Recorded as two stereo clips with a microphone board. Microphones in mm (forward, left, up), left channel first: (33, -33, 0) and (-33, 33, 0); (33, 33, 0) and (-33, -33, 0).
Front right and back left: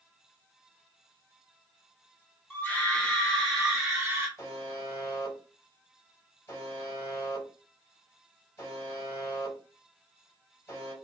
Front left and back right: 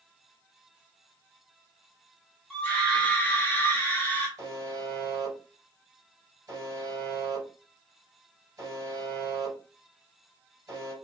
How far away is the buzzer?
About 1.9 m.